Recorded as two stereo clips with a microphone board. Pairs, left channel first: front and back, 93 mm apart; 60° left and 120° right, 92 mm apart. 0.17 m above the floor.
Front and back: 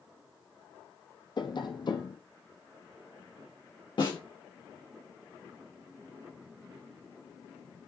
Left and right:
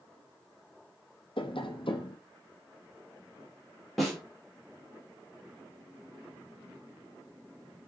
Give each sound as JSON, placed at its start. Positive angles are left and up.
{"t": 1.4, "sound": "tapping", "azimuth_deg": 35, "distance_m": 1.0}
{"t": 4.0, "sound": "a snare drum", "azimuth_deg": -30, "distance_m": 3.5}